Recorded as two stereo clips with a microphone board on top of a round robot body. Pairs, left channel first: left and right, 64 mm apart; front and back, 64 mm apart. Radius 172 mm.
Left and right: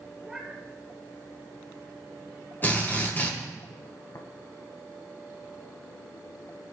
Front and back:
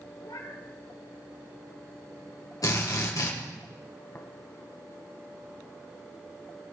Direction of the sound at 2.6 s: 30° left.